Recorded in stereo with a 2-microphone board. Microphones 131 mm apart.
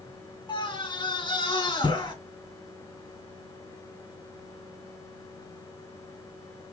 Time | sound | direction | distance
0.5 | a scream | 40° left (ahead or behind) | 2.5 m